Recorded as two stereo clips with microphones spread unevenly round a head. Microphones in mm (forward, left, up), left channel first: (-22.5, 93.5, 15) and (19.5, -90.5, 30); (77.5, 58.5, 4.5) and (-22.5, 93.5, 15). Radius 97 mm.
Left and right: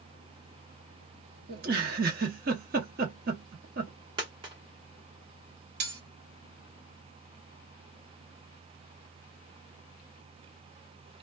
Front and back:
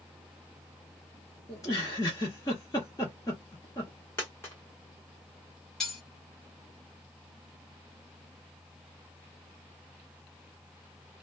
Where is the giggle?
85° right, 0.8 m.